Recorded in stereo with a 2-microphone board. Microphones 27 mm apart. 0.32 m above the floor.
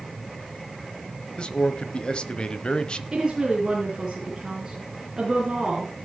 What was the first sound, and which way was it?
A man speaking, 40° left (ahead or behind).